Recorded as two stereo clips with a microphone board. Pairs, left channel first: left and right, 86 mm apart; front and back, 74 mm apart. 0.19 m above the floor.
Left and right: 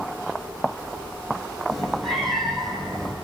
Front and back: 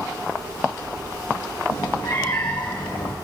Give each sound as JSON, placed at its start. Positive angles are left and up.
{"t": 1.7, "sound": "a cat meowing", "azimuth_deg": 5, "distance_m": 5.0}